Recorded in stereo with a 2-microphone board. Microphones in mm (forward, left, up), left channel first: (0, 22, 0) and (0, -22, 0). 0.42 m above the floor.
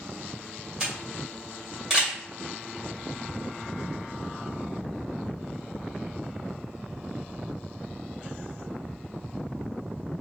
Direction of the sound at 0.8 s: 15° right (ahead or behind).